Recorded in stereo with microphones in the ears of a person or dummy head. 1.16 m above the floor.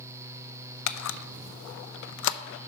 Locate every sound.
0.9 s a camera shutter: 75° left (ahead or behind), 0.5 m